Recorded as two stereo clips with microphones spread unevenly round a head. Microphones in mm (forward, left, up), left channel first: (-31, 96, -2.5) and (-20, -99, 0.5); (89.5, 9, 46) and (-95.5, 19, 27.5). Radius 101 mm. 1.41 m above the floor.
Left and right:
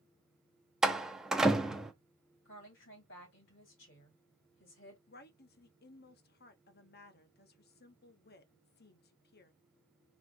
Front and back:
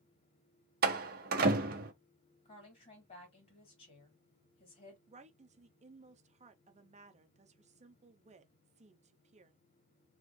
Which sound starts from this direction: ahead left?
A woman speaking, at 2.5 s.